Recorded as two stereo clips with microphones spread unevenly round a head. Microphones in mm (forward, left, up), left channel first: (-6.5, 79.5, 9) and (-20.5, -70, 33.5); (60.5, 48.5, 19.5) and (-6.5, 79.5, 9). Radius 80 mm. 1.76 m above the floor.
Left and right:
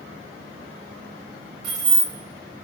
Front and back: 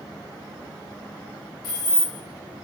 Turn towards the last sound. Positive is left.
turn(degrees=-55)